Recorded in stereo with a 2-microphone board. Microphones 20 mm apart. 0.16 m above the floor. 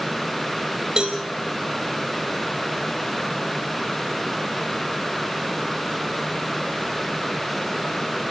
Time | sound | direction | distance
1.0 | a cowbell | 40° right (ahead or behind) | 3 m